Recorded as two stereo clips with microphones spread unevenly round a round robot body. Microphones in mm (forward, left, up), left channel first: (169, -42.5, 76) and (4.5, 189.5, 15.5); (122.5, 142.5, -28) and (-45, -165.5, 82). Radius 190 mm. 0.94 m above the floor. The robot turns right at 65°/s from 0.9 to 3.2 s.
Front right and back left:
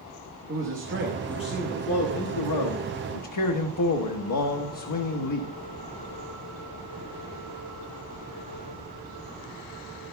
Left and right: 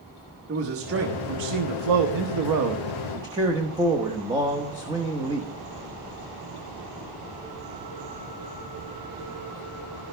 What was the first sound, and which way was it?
A man speaking, 175° left.